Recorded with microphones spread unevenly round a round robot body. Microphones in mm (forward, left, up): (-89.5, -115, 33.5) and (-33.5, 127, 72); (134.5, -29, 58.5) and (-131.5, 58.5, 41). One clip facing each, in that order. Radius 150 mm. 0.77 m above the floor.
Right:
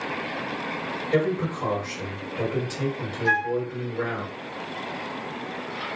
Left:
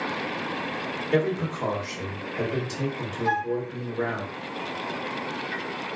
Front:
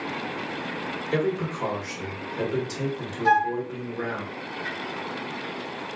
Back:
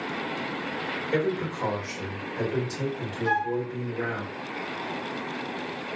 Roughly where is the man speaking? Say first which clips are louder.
Right 1 dB, front 1 dB; ahead left.